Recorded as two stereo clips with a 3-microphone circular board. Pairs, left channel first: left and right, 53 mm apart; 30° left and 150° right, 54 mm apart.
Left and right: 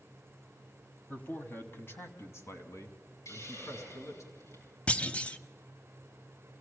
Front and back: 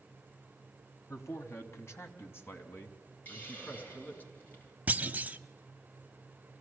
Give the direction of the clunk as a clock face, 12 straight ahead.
7 o'clock.